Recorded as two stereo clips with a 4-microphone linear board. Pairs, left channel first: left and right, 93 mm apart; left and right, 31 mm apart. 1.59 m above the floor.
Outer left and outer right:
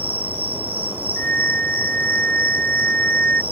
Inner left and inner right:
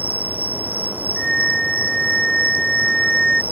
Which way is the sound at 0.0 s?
80° right.